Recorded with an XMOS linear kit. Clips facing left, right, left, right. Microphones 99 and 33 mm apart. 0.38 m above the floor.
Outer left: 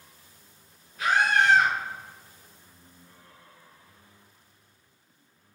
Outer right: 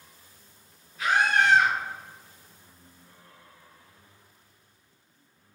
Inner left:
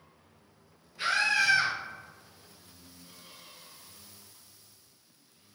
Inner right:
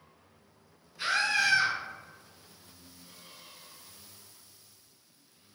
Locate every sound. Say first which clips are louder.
1.0 s a scream: even, inner left 1 dB; 50° left (ahead or behind), 1.6 m